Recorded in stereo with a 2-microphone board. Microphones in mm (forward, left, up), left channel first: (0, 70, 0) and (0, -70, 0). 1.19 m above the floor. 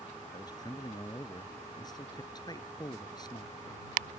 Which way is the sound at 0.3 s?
30° left (ahead or behind).